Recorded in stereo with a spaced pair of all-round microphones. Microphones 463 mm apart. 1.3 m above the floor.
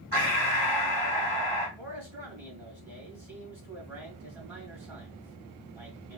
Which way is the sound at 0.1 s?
55° right (ahead or behind).